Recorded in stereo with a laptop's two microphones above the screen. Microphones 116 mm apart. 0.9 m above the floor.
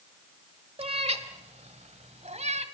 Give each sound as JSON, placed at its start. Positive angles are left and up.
{"t": 0.8, "sound": "a cat meowing", "side_deg": -55, "distance_m": 1.1}